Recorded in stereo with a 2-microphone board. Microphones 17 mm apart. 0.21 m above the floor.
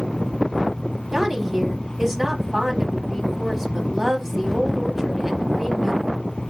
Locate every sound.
1.1 s a woman speaking: 25° right (ahead or behind), 1.0 m